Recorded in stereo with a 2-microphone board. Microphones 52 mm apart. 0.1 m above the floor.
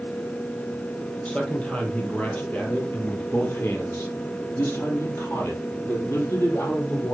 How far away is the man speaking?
About 3.5 m.